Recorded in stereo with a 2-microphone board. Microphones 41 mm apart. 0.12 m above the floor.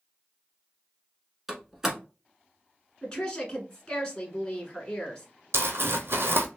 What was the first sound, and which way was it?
A door slam, 10° right (ahead or behind).